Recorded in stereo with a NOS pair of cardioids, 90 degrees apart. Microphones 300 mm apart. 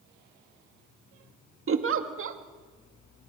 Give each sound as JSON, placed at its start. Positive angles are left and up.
{"t": 1.7, "sound": "a giggle", "azimuth_deg": -45, "distance_m": 2.0}